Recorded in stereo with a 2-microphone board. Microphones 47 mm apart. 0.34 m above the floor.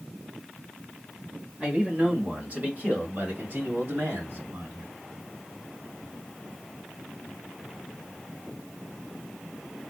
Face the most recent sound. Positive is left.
turn(degrees=-60)  # may be behind; listen again after turning